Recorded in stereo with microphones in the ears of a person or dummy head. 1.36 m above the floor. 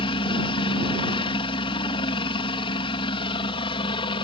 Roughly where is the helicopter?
Left.